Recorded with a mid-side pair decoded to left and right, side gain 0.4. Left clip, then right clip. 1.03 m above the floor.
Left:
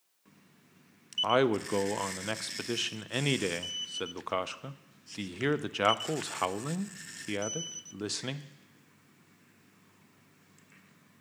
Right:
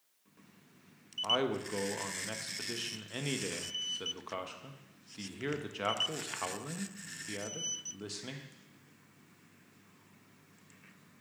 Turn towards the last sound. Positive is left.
turn(degrees=60)